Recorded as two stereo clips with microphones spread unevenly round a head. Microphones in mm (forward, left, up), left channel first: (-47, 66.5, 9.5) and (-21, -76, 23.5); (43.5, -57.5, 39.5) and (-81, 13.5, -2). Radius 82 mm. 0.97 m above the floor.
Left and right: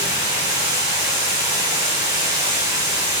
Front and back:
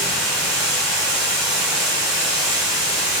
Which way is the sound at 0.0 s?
140° right.